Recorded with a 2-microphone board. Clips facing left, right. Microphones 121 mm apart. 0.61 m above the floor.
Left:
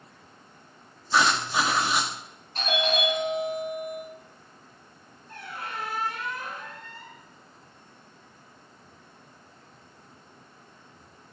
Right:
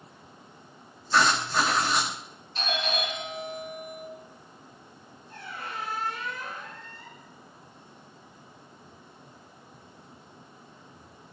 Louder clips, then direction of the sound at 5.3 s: Left 1 dB; 80° left.